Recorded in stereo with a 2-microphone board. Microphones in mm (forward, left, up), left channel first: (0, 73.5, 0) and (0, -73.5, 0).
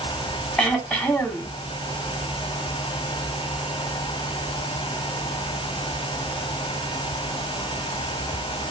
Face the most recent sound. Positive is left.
turn(degrees=10)  # may be behind; listen again after turning